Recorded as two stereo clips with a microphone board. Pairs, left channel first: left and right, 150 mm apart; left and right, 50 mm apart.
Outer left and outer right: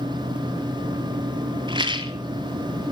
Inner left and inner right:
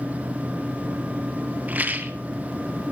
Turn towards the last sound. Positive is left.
turn(degrees=-30)  # may be behind; listen again after turning